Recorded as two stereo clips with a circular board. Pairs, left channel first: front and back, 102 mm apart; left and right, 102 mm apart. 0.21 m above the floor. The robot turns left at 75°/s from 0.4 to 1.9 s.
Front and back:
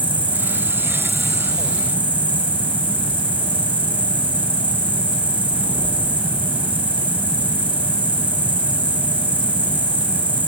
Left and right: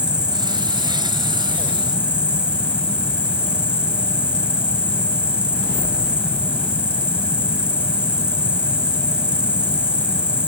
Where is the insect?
35° right, 1.1 m; by 10.5 s 145° right, 1.1 m.